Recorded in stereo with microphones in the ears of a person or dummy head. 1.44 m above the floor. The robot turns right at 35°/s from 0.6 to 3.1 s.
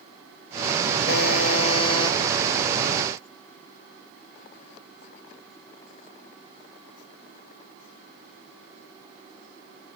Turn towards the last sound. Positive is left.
turn(degrees=-170)